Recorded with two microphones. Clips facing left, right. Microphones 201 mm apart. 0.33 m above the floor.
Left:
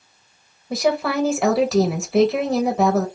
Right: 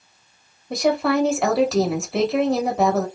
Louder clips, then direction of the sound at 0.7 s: Right 1 dB; centre (ahead or behind).